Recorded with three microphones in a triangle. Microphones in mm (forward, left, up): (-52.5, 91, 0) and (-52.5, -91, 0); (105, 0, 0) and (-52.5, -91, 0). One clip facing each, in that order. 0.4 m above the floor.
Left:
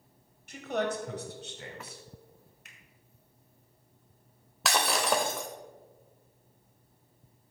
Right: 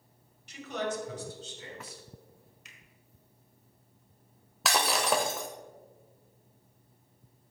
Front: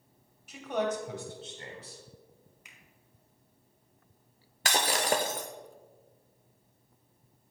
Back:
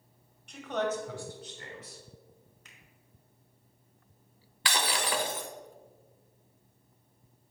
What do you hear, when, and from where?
0.5 s a man speaking: 115° left, 1.7 m; by 2.0 s 80° left, 2.5 m
2.6 s a finger snap: 105° left, 1.3 m
4.7 s breaking glass: straight ahead, 0.8 m